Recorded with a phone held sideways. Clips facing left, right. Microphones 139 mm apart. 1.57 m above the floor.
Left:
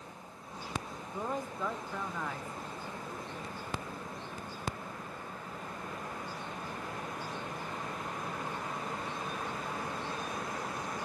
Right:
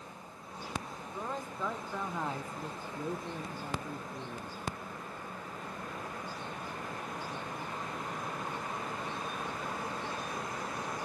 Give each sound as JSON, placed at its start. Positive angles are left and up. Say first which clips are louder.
{"t": 1.1, "sound": "a man speaking", "louder": "left 3 dB", "side_deg": 15, "distance_m": 1.0}